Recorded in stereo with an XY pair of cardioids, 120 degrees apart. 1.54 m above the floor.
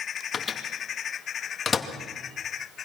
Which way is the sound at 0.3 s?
35° left.